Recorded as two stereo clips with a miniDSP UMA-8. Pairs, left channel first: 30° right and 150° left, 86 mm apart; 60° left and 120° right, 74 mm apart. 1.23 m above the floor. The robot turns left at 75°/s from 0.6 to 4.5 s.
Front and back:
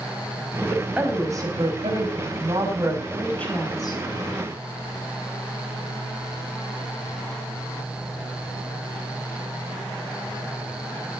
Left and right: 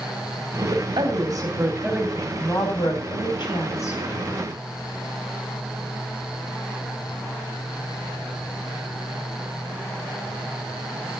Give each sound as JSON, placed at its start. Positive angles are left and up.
{"t": 0.6, "sound": "a woman speaking", "azimuth_deg": -105, "distance_m": 8.0}